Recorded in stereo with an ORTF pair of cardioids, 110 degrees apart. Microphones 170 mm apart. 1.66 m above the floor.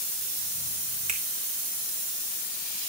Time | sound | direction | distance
1.1 | a finger snap | 55° right | 3.5 m